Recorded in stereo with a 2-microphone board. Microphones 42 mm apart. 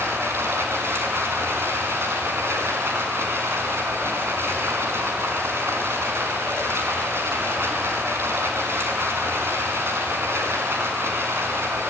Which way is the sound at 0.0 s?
85° right.